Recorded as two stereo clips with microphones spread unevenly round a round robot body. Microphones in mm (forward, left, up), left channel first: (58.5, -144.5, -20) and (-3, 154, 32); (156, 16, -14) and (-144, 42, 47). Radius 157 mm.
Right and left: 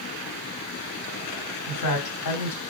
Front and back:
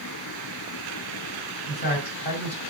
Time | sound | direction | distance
1.7 | a man speaking | 65° right | 2.5 m